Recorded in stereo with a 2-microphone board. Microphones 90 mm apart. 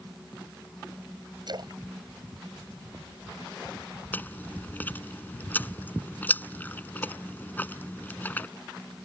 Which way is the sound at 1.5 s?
55° right (ahead or behind).